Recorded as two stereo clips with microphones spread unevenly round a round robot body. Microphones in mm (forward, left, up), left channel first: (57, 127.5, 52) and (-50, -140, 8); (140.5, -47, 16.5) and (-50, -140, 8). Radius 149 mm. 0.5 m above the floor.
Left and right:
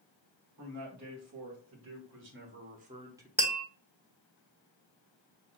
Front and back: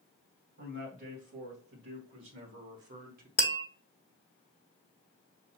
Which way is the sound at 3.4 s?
40° right.